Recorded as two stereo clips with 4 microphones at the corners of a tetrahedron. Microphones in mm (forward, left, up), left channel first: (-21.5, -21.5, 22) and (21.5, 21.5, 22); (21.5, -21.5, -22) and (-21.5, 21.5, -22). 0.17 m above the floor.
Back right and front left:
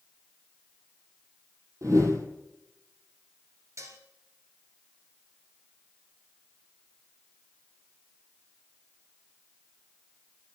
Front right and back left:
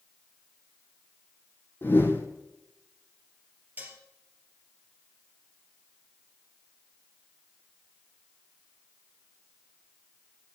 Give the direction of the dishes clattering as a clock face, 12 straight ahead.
9 o'clock.